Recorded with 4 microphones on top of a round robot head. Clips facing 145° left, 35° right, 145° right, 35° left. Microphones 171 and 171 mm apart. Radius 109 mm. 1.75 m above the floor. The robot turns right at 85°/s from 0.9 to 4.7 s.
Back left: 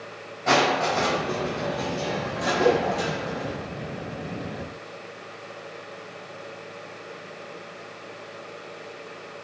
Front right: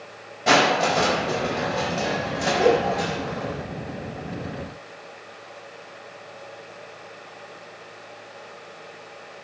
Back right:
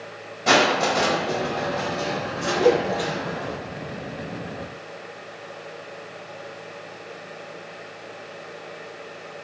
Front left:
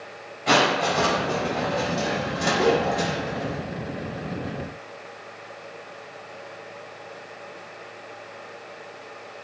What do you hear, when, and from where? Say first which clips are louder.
0.5 s crushing: front right 2 dB, back right 2 dB; 100° right, 4.5 m; by 3.6 s 130° left, 4.5 m
2.6 s a cowbell: front right 2 dB, back right 4 dB; 125° right, 0.9 m; by 2.8 s 110° right, 0.9 m